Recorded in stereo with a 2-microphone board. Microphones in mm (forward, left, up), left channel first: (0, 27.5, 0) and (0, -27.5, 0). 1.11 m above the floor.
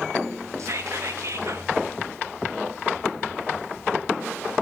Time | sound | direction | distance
0.6 | whispering | 65° right (ahead or behind) | 1.2 m